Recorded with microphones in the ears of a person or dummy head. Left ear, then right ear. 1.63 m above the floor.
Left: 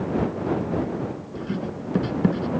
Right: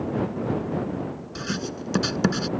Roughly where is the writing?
Right.